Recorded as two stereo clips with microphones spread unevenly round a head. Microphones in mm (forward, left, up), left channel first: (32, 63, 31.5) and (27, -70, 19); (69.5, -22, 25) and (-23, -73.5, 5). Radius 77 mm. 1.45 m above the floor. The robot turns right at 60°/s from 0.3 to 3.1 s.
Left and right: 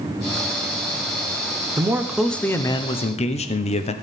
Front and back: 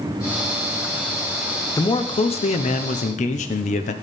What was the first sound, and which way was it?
A man speaking, 30° right.